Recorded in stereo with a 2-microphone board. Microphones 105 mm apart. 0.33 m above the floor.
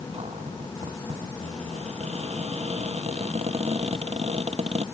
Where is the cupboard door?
80° right.